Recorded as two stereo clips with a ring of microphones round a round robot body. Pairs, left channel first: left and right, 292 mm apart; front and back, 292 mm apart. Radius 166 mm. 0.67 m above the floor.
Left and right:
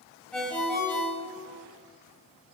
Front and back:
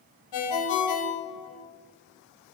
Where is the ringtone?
5° left, 1.5 m.